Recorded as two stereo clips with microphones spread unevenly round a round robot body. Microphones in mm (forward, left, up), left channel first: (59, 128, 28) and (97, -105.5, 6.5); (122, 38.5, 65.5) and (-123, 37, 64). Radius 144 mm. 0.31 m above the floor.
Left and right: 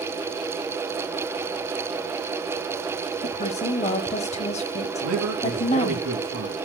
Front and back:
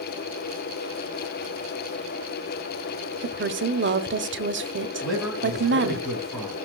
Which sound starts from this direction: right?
A man speaking, at 5.0 s.